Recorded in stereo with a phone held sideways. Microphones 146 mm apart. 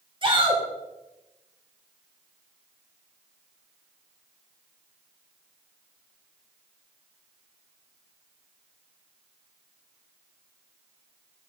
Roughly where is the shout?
Right.